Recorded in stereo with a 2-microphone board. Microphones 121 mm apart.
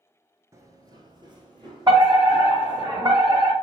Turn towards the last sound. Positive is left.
turn(degrees=-35)  # may be behind; listen again after turning